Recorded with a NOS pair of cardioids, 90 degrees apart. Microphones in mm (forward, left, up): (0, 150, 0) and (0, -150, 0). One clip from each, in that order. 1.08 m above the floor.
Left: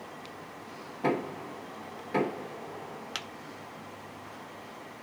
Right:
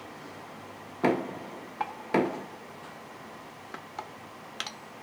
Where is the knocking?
60° right, 1.2 m.